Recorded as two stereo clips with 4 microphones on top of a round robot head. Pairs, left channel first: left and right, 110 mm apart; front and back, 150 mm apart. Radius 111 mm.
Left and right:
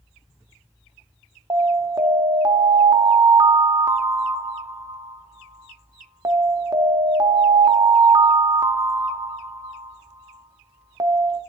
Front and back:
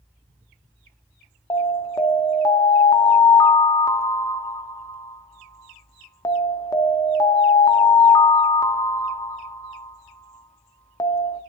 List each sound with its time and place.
1.5 s an alarm: 55° right, 0.7 m